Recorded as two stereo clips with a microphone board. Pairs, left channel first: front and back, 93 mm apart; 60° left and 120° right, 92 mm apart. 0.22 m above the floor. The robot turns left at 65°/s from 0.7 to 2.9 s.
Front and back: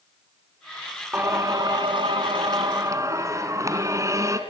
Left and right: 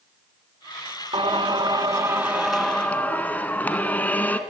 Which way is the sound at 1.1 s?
115° right.